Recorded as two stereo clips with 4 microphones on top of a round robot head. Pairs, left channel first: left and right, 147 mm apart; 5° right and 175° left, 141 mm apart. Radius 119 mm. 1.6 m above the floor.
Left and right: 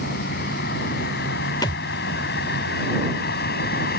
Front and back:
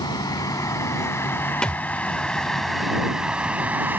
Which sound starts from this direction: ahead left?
A vehicle, at 0.0 s.